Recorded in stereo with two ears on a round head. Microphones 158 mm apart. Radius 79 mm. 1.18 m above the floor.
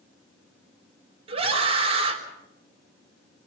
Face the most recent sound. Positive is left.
turn(degrees=-35)  # may be behind; listen again after turning